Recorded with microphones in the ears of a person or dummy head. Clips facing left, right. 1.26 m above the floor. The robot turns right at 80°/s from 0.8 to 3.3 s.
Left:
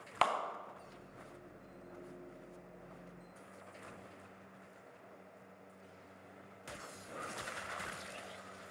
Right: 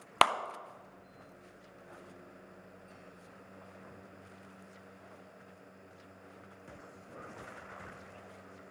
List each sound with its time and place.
0.2 s a clap: 70° right (ahead or behind), 0.5 m